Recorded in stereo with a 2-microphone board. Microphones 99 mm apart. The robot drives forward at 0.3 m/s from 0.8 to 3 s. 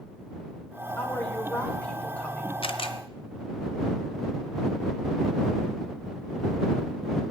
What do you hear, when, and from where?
1.0 s a woman speaking: 15° left (ahead or behind), 2.5 m; by 2.5 s 10° left (ahead or behind), 3 m
2.6 s a camera shutter: 65° left (ahead or behind), 0.8 m; by 3.0 s 60° left (ahead or behind), 0.9 m